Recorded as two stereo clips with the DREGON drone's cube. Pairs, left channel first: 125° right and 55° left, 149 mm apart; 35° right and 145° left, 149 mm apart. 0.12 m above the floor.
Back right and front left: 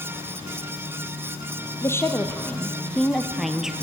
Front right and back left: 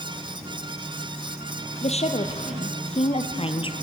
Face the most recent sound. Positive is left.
turn(degrees=-30)